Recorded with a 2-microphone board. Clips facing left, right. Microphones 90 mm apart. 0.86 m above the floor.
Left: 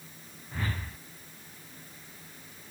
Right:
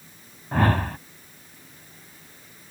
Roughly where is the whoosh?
Right.